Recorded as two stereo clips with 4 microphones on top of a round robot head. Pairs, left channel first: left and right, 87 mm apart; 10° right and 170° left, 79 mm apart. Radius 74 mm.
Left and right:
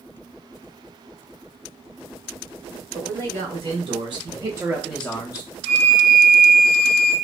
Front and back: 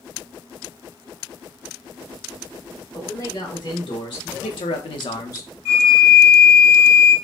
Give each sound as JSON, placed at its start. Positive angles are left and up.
{"t": 2.9, "sound": "a man speaking", "azimuth_deg": -65, "distance_m": 1.4}
{"t": 5.7, "sound": "a flute", "azimuth_deg": -45, "distance_m": 1.7}